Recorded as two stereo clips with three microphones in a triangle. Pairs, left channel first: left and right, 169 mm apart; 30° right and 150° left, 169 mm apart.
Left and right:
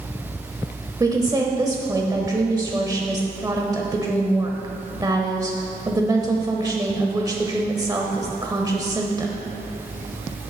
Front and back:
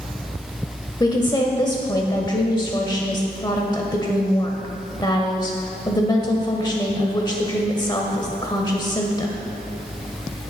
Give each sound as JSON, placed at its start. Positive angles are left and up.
{"t": 1.0, "sound": "a woman speaking", "azimuth_deg": -55, "distance_m": 0.9}